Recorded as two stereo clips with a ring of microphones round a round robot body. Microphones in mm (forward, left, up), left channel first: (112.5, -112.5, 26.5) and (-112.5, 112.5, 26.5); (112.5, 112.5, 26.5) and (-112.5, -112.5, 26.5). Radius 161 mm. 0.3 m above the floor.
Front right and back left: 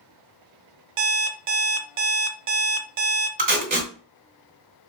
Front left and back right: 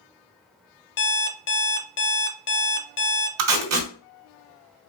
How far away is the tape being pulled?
About 2 m.